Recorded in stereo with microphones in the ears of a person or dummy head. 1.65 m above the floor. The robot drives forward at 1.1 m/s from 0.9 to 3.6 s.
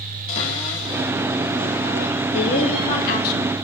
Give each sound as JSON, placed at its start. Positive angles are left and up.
{"t": 0.3, "sound": "a cupboard door", "side_deg": 35, "distance_m": 3.5}
{"t": 2.3, "sound": "a woman speaking", "side_deg": 40, "distance_m": 2.5}